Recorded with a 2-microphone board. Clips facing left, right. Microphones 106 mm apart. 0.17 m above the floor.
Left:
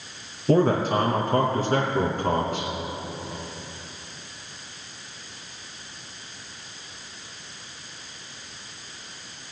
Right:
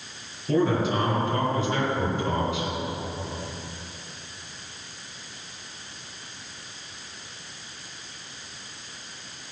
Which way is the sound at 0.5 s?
45° left (ahead or behind).